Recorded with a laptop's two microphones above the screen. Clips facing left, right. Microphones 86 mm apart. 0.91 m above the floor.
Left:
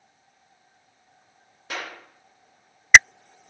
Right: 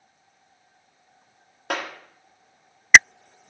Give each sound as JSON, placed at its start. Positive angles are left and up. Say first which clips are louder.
{"t": 1.7, "sound": "a clap", "louder": "right 5 dB", "side_deg": -65, "distance_m": 1.5}